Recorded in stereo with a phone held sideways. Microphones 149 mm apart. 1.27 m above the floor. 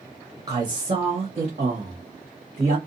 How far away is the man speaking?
About 0.8 m.